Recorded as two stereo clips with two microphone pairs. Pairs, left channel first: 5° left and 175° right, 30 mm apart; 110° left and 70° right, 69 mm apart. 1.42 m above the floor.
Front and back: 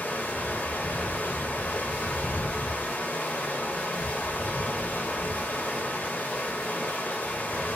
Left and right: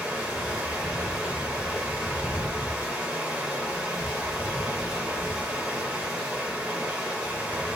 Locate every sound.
0.0 s running water: 5° left, 0.7 m